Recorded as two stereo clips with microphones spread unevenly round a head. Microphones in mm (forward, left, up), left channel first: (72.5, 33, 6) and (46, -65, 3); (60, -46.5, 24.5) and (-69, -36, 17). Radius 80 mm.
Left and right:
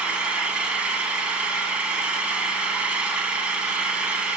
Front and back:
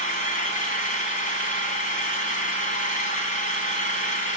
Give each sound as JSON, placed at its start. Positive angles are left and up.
{"t": 0.0, "sound": "an engine running", "azimuth_deg": -25, "distance_m": 3.5}